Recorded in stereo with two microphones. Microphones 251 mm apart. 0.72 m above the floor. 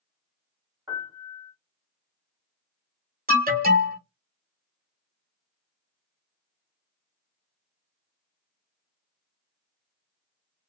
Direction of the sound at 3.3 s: 35° right (ahead or behind).